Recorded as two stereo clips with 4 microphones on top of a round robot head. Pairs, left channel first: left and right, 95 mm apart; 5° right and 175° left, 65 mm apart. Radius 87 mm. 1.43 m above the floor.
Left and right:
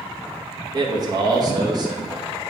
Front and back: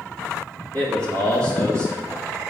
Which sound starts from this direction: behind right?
A man speaking, at 0.7 s.